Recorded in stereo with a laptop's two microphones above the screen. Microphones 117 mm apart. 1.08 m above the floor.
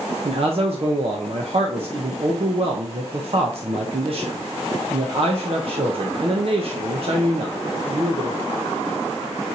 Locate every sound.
0.2 s a man speaking: 55° right (ahead or behind), 0.6 m